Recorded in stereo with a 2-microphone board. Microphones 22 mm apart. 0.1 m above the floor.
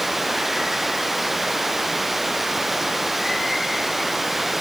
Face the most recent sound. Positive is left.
turn(degrees=-10)  # may be behind; listen again after turning